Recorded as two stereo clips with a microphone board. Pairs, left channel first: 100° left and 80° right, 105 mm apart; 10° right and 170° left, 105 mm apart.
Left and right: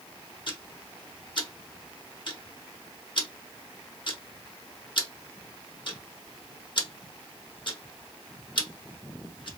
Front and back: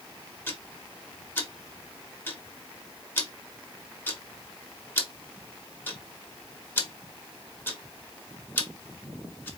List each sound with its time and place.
0.5 s ticking: 55° left, 1.0 m